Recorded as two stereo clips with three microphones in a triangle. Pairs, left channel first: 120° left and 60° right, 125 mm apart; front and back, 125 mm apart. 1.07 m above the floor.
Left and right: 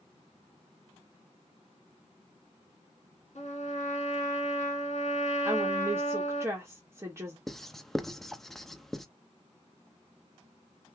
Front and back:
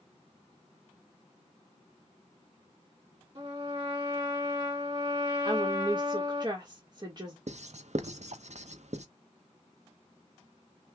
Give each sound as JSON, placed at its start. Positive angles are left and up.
{"t": 3.4, "sound": "a trumpet", "azimuth_deg": 135, "distance_m": 2.5}
{"t": 5.5, "sound": "a woman speaking", "azimuth_deg": -130, "distance_m": 1.5}
{"t": 7.5, "sound": "writing", "azimuth_deg": -155, "distance_m": 0.6}